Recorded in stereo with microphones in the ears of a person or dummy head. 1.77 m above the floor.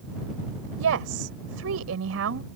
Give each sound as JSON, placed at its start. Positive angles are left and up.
{"t": 0.8, "sound": "a woman speaking", "side_deg": -75}